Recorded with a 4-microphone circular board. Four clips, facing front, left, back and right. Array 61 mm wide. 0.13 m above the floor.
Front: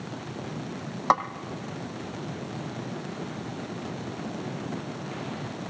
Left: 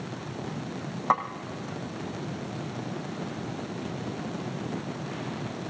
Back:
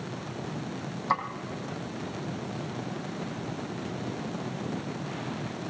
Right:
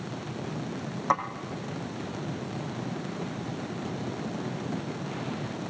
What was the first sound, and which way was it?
A snare drum, 15° left.